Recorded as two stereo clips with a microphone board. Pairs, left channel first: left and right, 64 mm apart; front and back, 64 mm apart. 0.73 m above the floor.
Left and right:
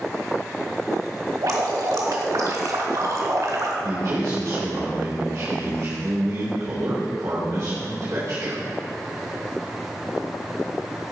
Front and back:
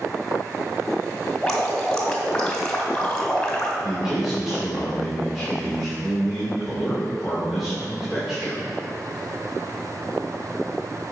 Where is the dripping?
80° right, 1.6 m.